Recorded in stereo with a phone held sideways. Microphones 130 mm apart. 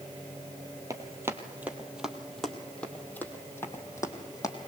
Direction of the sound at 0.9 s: 25° right (ahead or behind).